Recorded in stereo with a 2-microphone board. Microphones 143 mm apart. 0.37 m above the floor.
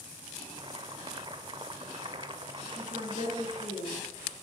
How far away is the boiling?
About 0.7 m.